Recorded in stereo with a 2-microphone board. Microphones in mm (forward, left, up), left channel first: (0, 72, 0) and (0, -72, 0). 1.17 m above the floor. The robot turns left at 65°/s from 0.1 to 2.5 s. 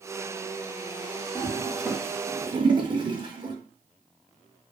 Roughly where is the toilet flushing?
Left.